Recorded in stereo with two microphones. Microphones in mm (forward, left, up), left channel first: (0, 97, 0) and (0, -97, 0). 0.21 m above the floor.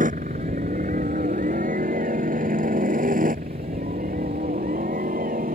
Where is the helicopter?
45° right (ahead or behind).